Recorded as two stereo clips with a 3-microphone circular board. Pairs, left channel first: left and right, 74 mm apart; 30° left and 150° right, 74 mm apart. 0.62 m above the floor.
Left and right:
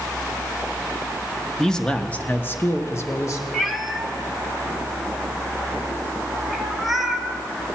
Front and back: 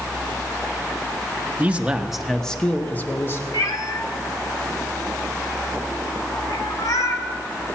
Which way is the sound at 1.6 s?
170° left.